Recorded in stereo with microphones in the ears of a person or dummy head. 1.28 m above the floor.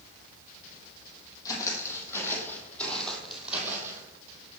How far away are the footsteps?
About 2.5 m.